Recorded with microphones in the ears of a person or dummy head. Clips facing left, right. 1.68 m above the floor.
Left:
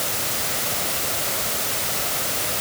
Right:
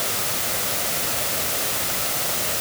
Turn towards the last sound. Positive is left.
No sound to turn to.